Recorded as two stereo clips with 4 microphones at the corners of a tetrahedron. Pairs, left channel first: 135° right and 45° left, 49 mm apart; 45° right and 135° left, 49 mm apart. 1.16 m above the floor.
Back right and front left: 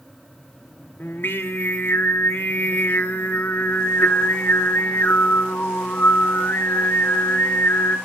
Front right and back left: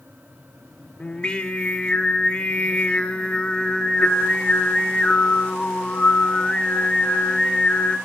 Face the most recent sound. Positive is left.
turn(degrees=-105)